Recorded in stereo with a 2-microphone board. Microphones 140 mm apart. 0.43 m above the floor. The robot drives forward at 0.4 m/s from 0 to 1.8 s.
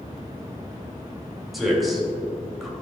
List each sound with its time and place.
1.5 s a man speaking: centre (ahead or behind), 2 m